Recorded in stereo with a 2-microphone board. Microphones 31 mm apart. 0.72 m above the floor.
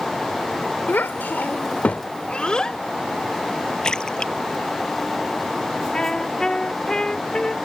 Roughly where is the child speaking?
Left.